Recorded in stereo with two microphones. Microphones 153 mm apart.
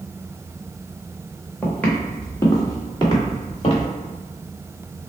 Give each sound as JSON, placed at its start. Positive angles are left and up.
{"t": 1.6, "sound": "footsteps", "side_deg": 5, "distance_m": 1.8}